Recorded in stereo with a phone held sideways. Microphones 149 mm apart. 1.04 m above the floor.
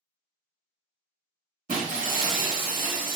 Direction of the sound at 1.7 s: 70° right (ahead or behind).